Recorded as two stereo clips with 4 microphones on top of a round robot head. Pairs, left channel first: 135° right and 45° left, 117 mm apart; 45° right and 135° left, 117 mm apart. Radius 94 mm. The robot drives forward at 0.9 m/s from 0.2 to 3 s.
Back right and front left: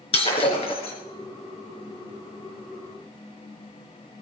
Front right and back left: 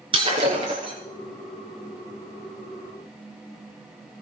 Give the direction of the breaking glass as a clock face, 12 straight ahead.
6 o'clock.